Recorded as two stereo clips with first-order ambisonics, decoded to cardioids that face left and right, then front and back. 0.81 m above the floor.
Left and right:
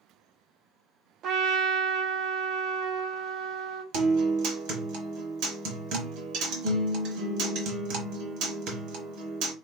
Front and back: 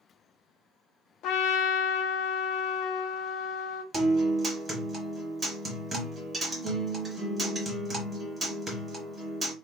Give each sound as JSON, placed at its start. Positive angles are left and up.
{"t": 1.2, "sound": "a trumpet", "azimuth_deg": -40, "distance_m": 0.6}
{"t": 3.9, "sound": "a guitar", "azimuth_deg": -105, "distance_m": 1.0}